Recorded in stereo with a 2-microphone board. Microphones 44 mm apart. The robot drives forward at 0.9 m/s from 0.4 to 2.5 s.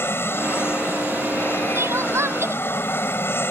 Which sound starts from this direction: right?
Crying, at 1.8 s.